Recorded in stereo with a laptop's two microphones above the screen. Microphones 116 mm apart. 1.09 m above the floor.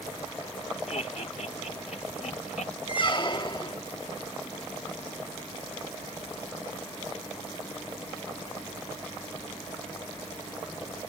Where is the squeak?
40° left (ahead or behind).